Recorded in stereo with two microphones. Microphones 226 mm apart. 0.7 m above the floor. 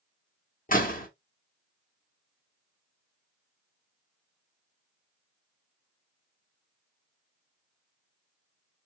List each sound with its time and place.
0.7 s a door slam: 40° left (ahead or behind), 1.2 m